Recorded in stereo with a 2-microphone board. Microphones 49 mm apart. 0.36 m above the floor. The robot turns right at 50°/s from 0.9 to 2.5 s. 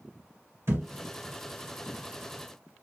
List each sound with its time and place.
0.7 s a thud: 60° right (ahead or behind), 1.8 m